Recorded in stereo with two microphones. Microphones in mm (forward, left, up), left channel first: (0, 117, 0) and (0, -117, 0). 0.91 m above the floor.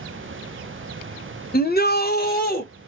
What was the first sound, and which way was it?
A shout, 40° left (ahead or behind).